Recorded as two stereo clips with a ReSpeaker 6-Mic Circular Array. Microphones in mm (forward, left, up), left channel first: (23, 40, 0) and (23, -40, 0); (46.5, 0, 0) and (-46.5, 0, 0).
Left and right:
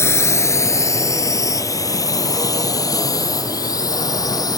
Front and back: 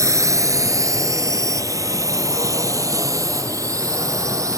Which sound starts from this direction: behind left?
A drone, at 0.0 s.